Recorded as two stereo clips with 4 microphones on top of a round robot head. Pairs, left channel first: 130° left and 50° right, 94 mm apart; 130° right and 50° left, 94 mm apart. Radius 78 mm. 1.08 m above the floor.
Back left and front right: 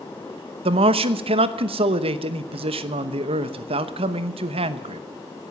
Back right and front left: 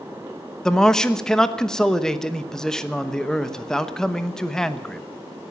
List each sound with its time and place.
0.7 s a man speaking: 50° right, 1.1 m